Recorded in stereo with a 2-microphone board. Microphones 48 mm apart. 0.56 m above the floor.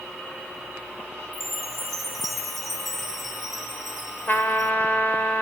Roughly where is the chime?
Centre.